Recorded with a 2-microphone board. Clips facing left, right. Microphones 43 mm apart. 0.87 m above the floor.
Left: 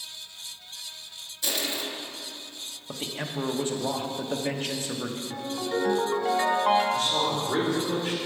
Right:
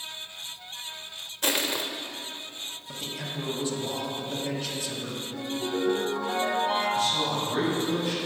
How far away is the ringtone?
About 3.5 m.